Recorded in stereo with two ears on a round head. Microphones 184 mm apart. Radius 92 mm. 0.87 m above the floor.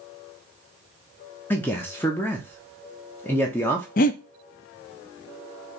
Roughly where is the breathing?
Left.